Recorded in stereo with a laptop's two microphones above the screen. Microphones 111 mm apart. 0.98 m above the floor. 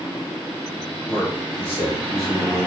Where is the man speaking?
10° left (ahead or behind), 2.0 m; by 2.7 s 35° left (ahead or behind), 1.4 m.